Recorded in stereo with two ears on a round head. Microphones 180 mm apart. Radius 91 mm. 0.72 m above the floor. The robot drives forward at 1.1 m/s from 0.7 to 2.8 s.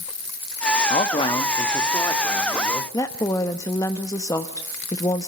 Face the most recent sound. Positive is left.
turn(degrees=15)  # may be behind; listen again after turning